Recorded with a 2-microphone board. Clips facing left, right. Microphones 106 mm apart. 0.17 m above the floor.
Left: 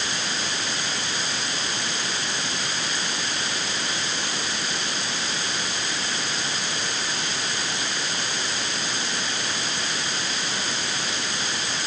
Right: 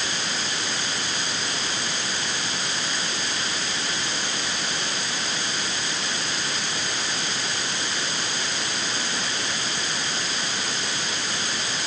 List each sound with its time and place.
Only background noise.